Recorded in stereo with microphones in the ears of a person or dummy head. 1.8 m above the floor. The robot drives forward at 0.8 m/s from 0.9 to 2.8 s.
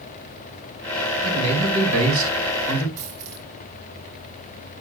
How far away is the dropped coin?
About 4.5 m.